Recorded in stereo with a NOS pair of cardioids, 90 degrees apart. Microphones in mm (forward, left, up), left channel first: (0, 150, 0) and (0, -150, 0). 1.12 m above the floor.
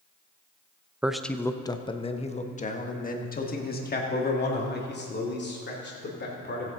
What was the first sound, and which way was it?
A man speaking, 5° right.